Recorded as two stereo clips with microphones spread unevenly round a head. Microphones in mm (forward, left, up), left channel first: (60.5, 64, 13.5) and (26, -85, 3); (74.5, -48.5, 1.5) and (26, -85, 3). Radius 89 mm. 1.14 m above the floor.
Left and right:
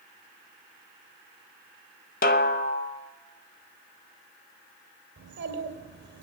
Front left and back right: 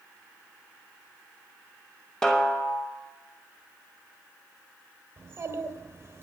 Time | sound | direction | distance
2.2 | a snare drum | 125° left | 0.5 m
5.2 | a child speaking | 95° right | 2.5 m